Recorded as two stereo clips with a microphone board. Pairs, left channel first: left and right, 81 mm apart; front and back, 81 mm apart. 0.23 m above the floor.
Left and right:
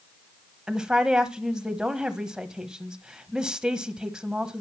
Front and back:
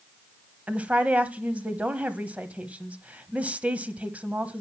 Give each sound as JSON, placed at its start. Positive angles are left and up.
{"t": 0.7, "sound": "a woman speaking", "azimuth_deg": -155, "distance_m": 0.9}